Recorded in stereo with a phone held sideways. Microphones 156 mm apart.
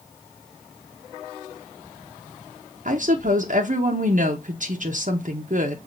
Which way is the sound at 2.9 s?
60° right (ahead or behind).